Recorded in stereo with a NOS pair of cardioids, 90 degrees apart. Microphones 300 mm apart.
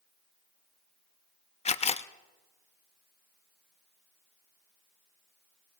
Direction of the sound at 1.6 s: 20° left.